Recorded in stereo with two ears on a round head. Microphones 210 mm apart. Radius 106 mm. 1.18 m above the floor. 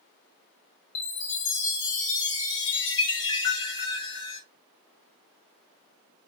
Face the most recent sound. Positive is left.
turn(degrees=55)  # may be behind; listen again after turning